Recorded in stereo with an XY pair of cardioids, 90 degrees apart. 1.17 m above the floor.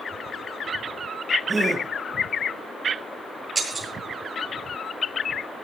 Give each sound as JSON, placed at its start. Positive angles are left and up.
{"t": 1.5, "sound": "a gasp", "azimuth_deg": -10, "distance_m": 4.5}
{"t": 3.5, "sound": "breaking glass", "azimuth_deg": -20, "distance_m": 9.0}